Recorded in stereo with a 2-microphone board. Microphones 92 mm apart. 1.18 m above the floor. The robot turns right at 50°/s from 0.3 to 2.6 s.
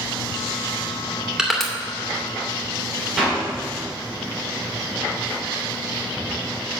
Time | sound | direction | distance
1.4 | crushing | 5° right (ahead or behind) | 2 m
3.2 | a clap | centre (ahead or behind) | 4 m